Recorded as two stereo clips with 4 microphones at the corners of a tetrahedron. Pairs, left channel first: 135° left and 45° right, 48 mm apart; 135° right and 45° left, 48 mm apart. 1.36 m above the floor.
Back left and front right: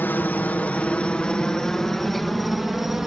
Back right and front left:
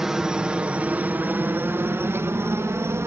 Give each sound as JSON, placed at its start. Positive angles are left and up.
{"t": 0.0, "sound": "a helicopter", "azimuth_deg": 120}